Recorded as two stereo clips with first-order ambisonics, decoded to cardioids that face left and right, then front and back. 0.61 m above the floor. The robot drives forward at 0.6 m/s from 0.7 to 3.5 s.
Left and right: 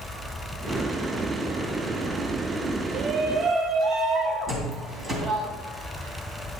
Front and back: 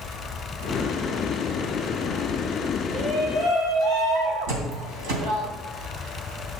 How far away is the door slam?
About 3 m.